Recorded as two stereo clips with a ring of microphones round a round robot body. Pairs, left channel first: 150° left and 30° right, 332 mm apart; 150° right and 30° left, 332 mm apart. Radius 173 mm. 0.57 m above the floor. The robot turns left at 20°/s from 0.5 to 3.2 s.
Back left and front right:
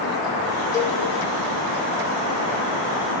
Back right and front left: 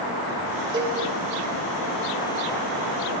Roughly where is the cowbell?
Left.